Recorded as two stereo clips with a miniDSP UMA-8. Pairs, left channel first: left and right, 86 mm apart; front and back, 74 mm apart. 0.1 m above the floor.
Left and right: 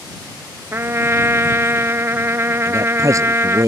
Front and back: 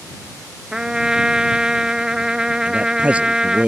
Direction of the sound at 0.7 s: 110° right.